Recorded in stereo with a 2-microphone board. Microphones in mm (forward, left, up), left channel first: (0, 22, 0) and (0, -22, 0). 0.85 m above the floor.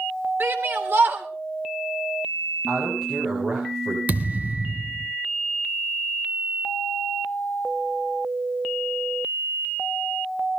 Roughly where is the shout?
Right.